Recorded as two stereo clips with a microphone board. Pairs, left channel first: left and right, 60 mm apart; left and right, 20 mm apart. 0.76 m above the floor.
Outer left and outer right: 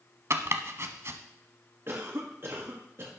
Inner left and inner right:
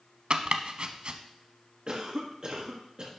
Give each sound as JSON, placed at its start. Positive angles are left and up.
{"t": 0.3, "sound": "chopping", "side_deg": -50, "distance_m": 1.0}
{"t": 1.9, "sound": "a cough", "side_deg": -45, "distance_m": 1.4}